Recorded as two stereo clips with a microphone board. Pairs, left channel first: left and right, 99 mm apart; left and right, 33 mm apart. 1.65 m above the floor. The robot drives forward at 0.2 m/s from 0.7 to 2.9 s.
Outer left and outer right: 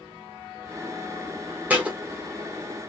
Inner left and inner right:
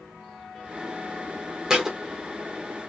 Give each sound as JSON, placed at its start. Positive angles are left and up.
{"t": 1.7, "sound": "a thud", "side_deg": -15, "distance_m": 1.1}